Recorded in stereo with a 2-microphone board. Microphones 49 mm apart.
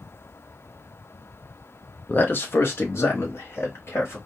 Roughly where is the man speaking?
Left.